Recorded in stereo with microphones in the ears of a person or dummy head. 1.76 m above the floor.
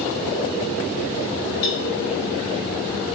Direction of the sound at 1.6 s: 80° left.